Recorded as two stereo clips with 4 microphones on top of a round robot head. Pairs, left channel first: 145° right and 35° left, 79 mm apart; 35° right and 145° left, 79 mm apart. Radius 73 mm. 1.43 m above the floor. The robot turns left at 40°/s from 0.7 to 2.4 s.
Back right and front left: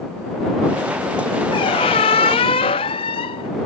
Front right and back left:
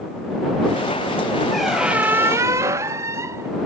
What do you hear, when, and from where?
1.5 s a squeak: 125° right; by 3.5 s 160° right